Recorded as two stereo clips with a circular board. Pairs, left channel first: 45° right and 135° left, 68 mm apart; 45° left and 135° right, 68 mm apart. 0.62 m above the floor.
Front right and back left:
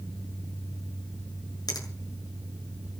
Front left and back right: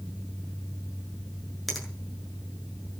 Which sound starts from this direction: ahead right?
A finger snap, at 1.7 s.